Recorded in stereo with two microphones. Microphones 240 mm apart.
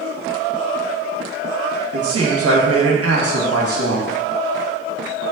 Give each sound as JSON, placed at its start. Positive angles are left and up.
{"t": 1.9, "sound": "a man speaking", "side_deg": -70, "distance_m": 0.9}